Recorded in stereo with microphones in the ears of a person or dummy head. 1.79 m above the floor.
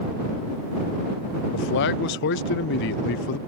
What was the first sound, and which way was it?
A man speaking, 60° left (ahead or behind).